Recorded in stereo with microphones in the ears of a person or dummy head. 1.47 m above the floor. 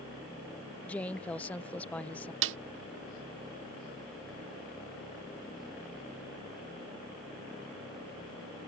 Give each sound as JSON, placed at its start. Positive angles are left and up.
{"t": 0.8, "sound": "a woman speaking", "side_deg": 5}
{"t": 2.4, "sound": "a snare drum", "side_deg": -70}